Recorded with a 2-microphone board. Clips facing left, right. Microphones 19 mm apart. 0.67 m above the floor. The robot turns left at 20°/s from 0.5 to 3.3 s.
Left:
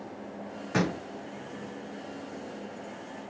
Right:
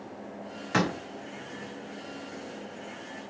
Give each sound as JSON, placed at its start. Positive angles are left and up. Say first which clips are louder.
{"t": 0.7, "sound": "a door slam", "louder": "right 2 dB", "side_deg": -45, "distance_m": 3.0}